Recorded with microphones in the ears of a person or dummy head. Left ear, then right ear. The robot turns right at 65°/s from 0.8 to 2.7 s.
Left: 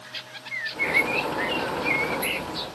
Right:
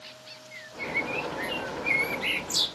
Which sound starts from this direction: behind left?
A bird, at 0.5 s.